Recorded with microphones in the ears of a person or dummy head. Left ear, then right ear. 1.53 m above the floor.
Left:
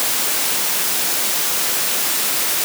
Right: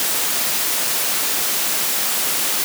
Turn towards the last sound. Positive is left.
No sound to turn to.